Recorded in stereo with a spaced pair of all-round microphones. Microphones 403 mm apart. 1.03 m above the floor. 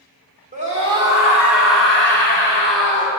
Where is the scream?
20° right (ahead or behind), 3 m; by 3.1 s 10° left (ahead or behind), 6 m.